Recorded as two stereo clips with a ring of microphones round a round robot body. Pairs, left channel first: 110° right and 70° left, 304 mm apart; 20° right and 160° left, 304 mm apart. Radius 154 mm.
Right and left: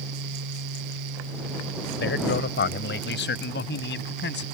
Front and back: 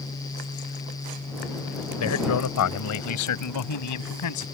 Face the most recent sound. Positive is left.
turn(degrees=-55)